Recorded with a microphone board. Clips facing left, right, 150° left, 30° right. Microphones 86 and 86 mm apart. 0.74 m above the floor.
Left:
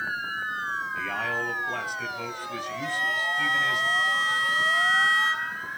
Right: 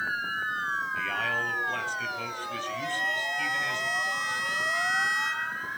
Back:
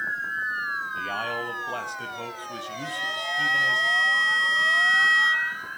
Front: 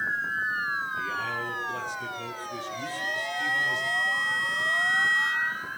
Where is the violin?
140° left, 4 m.